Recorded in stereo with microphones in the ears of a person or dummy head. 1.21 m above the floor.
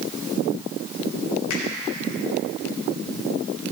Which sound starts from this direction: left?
A finger snap, at 1.5 s.